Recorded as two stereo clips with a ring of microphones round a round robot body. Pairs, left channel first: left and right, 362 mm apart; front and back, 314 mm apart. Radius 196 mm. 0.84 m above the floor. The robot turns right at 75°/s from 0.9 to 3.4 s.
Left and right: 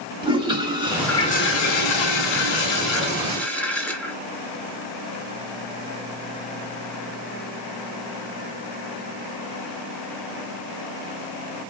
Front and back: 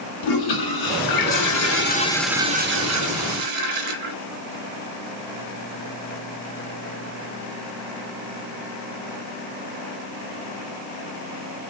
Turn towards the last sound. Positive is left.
turn(degrees=175)